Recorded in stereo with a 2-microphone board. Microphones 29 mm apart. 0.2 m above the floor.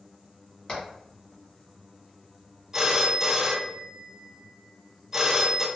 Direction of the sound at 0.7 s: 30° left (ahead or behind).